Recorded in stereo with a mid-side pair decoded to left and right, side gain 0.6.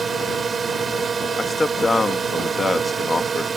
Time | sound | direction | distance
0.0 | a drone | 30° right | ?
1.4 | a man speaking | 15° left | ?